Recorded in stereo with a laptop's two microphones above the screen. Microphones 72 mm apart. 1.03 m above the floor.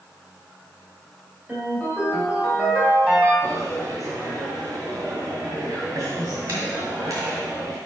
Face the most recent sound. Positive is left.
turn(degrees=-55)  # may be behind; listen again after turning